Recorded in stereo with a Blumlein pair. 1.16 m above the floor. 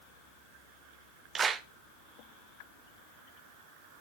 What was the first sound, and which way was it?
A clap, 20° right.